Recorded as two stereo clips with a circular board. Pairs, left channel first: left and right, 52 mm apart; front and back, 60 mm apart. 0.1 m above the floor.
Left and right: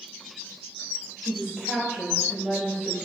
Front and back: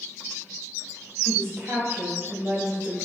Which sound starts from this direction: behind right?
A woman speaking, at 1.2 s.